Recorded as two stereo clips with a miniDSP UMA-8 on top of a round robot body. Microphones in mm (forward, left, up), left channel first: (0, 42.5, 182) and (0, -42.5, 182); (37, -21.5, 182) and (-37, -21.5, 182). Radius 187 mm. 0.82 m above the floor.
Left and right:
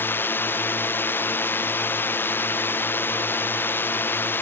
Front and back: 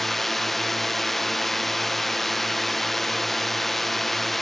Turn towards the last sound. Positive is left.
turn(degrees=85)